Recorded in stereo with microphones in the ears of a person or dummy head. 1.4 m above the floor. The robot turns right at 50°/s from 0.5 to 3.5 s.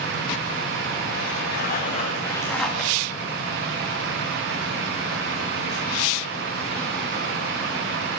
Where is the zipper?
115° left, 1.8 m; by 2.9 s 175° right, 1.8 m.